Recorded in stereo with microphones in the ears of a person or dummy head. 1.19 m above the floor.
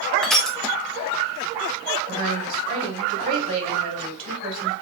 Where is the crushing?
Centre (ahead or behind), 0.8 m.